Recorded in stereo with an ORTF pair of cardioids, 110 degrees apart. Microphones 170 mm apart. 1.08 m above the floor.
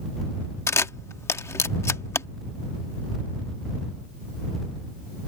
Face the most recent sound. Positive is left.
turn(degrees=15)